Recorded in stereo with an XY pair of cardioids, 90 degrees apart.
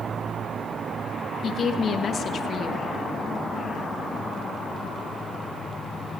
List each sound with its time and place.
1.4 s a woman speaking: 60° left, 1.5 m